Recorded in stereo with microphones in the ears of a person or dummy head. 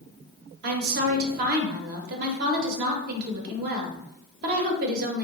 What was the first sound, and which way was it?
A woman speaking, 55° right (ahead or behind).